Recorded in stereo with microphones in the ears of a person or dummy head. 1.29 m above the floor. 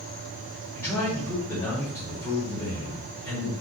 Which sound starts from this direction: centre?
A man speaking, at 0.8 s.